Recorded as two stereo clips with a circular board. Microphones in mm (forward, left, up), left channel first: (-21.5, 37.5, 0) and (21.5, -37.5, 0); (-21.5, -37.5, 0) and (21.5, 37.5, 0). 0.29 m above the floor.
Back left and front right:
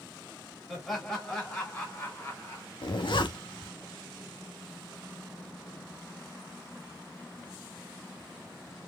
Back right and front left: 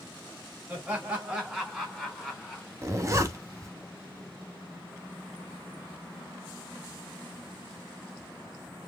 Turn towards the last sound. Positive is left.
turn(degrees=110)